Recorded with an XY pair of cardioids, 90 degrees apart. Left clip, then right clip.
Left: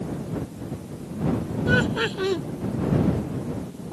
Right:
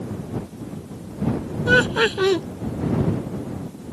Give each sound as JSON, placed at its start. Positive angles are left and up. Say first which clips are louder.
{"t": 1.7, "sound": "laughter", "louder": "right 6 dB", "azimuth_deg": -50}